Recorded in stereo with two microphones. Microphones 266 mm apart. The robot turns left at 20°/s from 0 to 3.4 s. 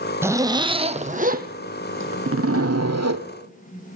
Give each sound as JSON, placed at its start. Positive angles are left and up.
{"t": 0.2, "sound": "a zipper", "azimuth_deg": -10, "distance_m": 1.3}